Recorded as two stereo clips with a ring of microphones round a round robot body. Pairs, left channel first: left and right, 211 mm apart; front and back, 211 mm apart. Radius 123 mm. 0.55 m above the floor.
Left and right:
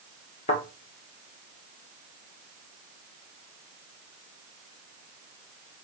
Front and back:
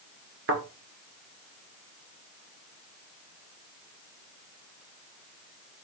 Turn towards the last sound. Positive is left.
turn(degrees=155)